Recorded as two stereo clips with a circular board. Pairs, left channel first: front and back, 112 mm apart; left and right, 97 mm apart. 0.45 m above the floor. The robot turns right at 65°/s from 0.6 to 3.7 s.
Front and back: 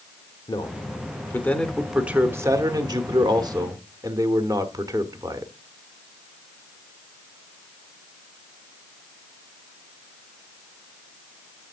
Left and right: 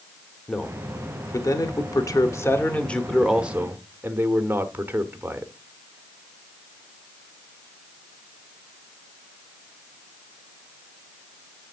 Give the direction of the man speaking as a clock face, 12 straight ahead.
12 o'clock.